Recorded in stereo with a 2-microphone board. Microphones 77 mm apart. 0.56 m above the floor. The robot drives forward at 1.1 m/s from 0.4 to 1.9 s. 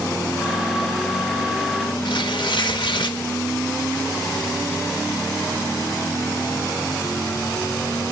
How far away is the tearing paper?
About 0.8 m.